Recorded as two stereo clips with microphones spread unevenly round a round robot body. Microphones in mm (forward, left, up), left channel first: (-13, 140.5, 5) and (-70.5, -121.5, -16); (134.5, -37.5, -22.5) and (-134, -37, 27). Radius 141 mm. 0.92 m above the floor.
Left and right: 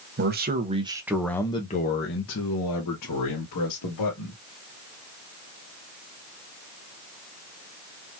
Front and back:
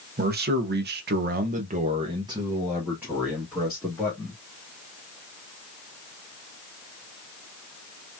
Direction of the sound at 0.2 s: 125° right.